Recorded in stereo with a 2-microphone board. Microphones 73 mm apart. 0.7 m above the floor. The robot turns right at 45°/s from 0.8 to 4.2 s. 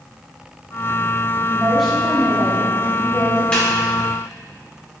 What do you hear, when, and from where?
1.5 s a woman speaking: 15° right, 1.8 m; by 3.4 s 75° left, 1.8 m
3.5 s a snare drum: 15° left (ahead or behind), 2.5 m; by 3.7 s 5° left (ahead or behind), 2.5 m